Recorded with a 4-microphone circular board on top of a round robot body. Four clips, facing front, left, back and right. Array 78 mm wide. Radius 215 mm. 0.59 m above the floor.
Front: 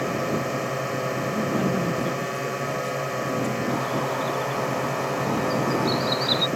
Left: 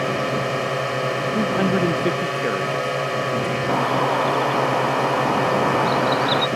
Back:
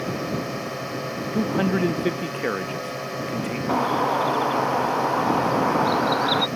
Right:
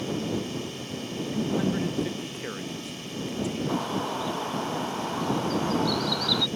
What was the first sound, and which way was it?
A drone, 80° left.